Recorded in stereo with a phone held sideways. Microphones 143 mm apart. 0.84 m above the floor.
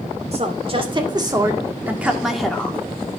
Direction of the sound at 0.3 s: 45° right (ahead or behind).